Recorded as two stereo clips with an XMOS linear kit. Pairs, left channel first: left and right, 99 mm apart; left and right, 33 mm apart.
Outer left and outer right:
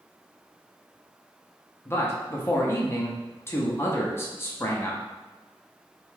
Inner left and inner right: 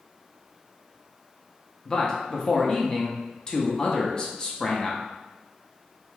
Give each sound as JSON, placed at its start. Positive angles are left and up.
{"t": 1.9, "sound": "a man speaking", "side_deg": 25, "distance_m": 0.6}